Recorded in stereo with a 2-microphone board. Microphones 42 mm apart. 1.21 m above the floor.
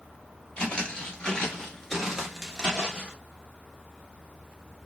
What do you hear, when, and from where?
0.6 s footsteps: 25° left (ahead or behind), 1.4 m; by 3.1 s 20° right (ahead or behind), 1.2 m